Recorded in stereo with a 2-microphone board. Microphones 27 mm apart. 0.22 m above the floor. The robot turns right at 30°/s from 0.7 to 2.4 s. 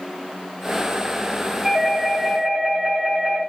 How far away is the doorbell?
About 1.4 m.